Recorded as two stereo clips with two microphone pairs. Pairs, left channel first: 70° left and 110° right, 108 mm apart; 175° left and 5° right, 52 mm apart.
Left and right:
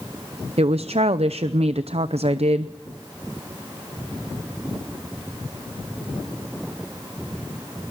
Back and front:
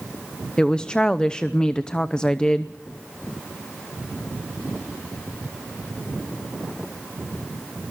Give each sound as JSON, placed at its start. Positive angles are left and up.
{"t": 0.6, "sound": "a woman speaking", "azimuth_deg": -115, "distance_m": 0.7}